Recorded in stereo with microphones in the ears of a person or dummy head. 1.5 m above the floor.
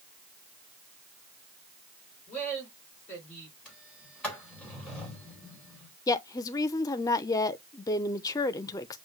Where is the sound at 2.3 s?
40° left (ahead or behind), 5 m.